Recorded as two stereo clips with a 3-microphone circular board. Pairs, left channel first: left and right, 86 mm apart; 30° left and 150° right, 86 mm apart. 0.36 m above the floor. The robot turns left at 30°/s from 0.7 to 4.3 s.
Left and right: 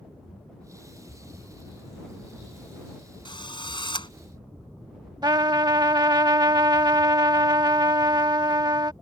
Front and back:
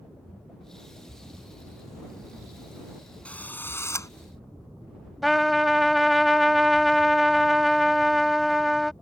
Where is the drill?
105° left; by 4.1 s 80° left.